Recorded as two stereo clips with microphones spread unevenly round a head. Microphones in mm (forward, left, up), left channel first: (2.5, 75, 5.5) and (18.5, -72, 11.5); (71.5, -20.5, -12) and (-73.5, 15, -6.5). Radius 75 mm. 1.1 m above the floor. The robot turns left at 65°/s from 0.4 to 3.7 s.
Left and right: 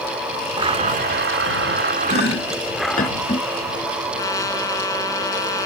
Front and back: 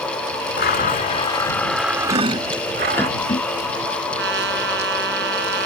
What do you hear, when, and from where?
0.6 s a blender: 25° right; by 3.1 s 170° left
2.1 s chopping: 120° left; by 3.5 s 30° left
4.2 s a trumpet: 165° left